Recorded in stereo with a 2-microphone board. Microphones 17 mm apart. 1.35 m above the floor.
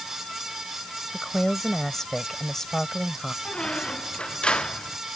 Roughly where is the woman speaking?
Left.